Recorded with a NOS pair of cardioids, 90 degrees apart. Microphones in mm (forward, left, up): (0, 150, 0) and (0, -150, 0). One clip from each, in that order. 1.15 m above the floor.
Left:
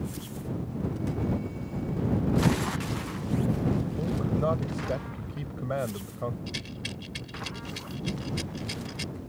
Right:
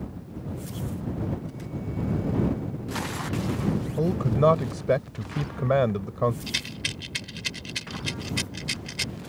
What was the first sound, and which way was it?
A man speaking, 65° right.